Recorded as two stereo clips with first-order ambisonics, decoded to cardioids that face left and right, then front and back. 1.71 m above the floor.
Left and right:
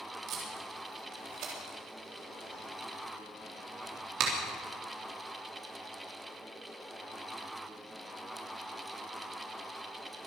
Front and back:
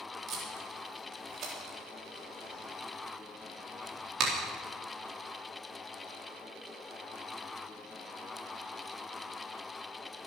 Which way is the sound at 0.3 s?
130° right.